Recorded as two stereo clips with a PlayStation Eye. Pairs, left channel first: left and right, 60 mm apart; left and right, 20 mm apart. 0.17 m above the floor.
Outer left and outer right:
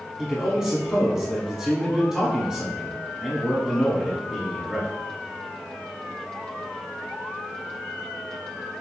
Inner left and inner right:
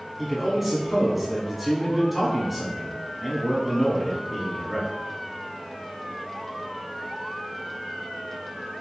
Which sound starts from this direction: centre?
A man speaking, at 0.2 s.